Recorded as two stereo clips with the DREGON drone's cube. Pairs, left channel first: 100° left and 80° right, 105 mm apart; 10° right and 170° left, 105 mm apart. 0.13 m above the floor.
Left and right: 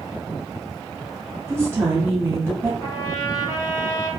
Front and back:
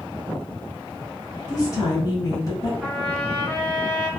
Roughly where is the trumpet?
Left.